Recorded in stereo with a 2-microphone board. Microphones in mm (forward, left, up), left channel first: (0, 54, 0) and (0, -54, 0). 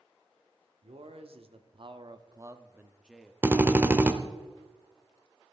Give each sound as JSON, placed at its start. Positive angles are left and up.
{"t": 0.8, "sound": "a man speaking", "side_deg": -65, "distance_m": 1.2}
{"t": 3.4, "sound": "a drill", "side_deg": -20, "distance_m": 0.8}